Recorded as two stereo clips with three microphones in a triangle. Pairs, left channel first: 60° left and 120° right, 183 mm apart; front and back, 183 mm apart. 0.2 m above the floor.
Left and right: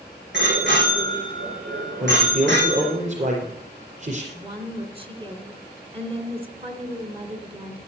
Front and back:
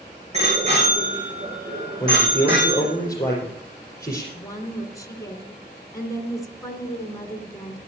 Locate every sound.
0.3 s a bicycle bell: 130° right, 9 m; by 2.9 s 120° right, 7.5 m
2.0 s a man speaking: 75° right, 4.5 m
4.3 s a woman speaking: 70° right, 2.5 m